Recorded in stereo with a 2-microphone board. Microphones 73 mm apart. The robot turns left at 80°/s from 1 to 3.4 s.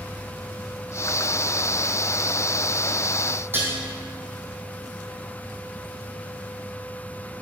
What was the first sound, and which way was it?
Dishes clattering, 30° right (ahead or behind).